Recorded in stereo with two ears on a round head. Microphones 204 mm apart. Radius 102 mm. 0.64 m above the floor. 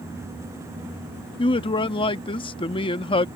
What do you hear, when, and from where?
1.4 s a man speaking: 25° left (ahead or behind)